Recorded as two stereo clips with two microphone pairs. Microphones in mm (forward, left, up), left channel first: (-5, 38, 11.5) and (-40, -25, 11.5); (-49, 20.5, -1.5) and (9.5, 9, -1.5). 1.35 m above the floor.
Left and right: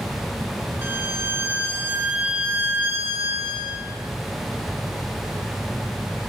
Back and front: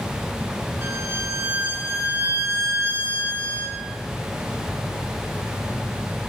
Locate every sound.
0.8 s a violin: 60° right, 3 m